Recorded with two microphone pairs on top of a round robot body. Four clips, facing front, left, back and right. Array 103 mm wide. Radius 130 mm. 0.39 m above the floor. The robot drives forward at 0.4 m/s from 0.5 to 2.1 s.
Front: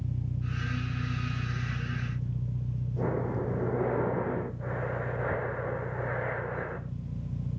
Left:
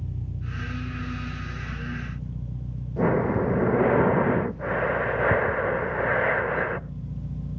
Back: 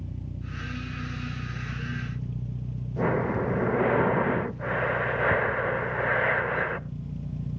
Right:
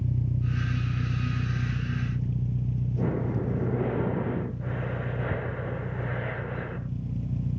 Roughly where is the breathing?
Behind left.